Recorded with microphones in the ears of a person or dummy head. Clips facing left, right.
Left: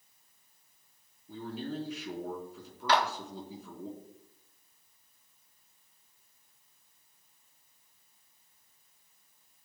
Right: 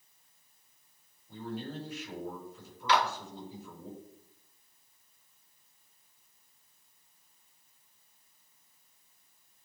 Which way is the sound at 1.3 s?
70° left (ahead or behind).